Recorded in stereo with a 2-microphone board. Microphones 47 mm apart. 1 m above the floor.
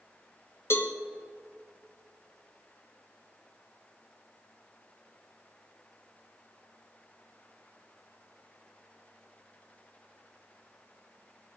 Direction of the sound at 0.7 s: 60° left (ahead or behind).